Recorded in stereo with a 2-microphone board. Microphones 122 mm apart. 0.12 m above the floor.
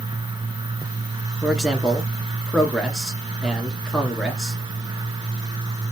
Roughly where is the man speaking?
Centre.